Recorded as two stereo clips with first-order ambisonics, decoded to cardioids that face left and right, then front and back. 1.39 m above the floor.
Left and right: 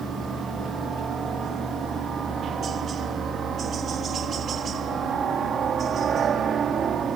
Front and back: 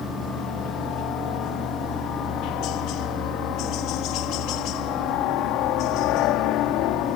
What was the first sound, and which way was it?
A helicopter, 30° right.